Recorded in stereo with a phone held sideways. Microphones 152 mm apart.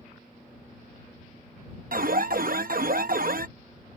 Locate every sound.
1.9 s an alarm: 65° right (ahead or behind)